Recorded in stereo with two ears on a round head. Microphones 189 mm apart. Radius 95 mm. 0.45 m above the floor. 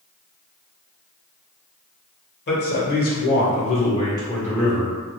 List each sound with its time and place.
2.5 s a man speaking: 55° left (ahead or behind), 1.3 m; by 5.0 s 5° right (ahead or behind), 1.1 m